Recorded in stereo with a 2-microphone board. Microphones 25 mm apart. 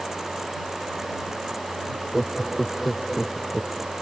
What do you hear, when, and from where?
1.9 s laughter: 10° left (ahead or behind); by 3.9 s centre (ahead or behind)